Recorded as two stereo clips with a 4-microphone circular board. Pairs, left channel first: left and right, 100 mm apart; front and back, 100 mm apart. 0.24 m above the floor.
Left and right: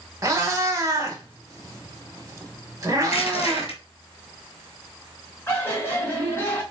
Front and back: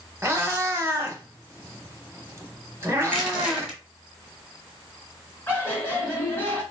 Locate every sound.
0.2 s a cat meowing: 130° right, 0.7 m
3.0 s crushing: 95° left, 1.3 m
5.5 s laughter: 50° left, 1.4 m